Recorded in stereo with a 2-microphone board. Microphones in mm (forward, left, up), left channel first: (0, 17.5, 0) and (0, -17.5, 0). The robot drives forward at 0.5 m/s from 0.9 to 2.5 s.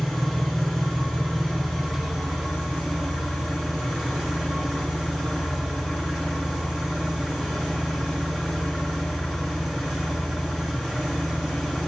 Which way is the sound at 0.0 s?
5° left (ahead or behind).